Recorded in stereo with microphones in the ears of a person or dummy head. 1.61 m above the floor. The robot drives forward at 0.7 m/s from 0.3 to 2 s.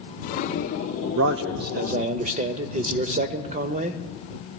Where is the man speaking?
70° right (ahead or behind), 0.5 m; by 4.0 s 35° right (ahead or behind), 0.8 m.